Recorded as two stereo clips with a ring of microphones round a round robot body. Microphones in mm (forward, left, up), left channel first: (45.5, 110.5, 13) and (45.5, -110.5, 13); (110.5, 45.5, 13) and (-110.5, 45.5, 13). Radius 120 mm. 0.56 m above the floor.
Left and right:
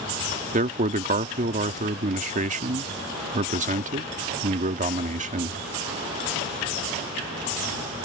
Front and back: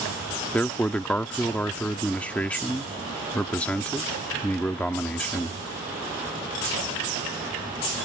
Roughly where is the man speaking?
Right.